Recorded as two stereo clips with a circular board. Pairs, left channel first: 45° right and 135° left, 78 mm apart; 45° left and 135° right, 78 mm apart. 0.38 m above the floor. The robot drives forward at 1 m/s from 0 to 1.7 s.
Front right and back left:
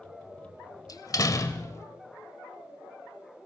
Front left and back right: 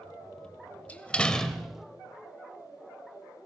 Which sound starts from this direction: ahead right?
A door slam, at 0.9 s.